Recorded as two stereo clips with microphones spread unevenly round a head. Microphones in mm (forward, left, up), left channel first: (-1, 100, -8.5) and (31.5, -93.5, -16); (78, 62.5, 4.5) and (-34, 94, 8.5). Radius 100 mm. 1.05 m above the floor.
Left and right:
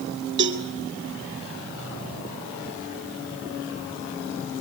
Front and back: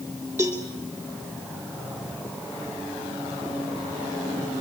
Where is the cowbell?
120° right, 2 m.